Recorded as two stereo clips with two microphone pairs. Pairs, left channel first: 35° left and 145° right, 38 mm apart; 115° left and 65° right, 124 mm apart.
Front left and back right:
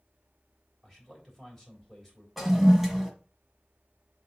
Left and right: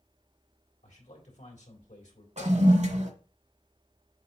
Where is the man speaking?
120° left, 3.5 m.